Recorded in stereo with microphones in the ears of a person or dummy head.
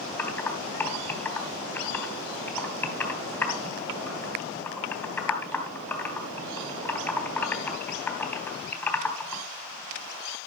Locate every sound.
0.2 s typing on a keyboard: 15° left (ahead or behind), 2.5 m